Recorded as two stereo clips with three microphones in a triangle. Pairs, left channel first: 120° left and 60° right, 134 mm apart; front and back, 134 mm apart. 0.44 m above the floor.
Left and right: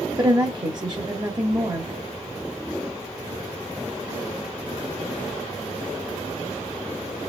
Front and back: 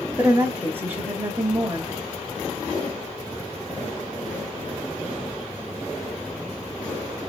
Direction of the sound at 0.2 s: 110° right.